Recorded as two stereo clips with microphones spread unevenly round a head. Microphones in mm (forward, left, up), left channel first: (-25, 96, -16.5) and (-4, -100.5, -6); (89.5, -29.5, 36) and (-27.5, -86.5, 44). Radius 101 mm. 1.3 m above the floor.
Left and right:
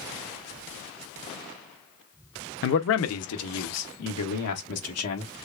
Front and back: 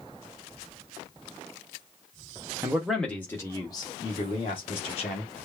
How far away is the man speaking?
About 0.7 m.